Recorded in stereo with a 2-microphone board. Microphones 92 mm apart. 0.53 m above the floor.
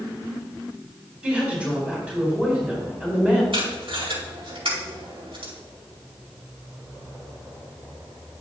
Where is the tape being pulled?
75° right (ahead or behind), 4.5 m.